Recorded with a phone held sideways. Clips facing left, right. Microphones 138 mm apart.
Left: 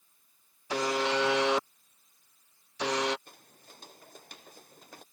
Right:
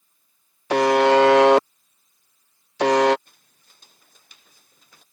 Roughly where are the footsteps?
Left.